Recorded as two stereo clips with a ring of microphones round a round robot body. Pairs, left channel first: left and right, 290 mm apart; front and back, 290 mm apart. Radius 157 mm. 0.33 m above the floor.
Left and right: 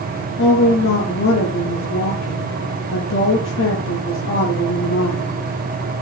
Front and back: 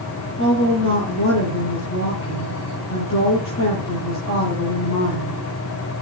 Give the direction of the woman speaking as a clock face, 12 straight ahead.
11 o'clock.